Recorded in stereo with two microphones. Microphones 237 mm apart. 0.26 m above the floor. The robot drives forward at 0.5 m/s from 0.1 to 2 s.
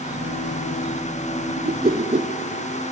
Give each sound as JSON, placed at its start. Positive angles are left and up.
{"t": 1.6, "sound": "a whoosh", "side_deg": -45, "distance_m": 0.5}